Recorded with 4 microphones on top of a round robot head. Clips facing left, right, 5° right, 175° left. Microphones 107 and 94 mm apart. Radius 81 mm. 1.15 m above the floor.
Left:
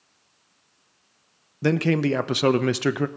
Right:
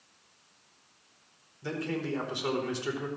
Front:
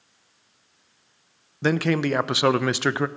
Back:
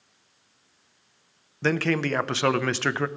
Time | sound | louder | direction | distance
1.6 | a man speaking | left 12 dB, front 2 dB | 70° left | 0.7 m